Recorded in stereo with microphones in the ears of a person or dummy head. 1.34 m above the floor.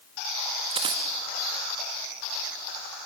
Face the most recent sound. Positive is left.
turn(degrees=-30)  # may be behind; listen again after turning